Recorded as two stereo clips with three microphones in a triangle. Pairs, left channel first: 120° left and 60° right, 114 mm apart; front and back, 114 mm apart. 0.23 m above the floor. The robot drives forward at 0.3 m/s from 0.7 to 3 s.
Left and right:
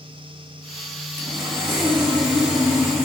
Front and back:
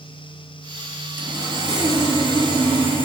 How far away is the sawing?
About 1.0 m.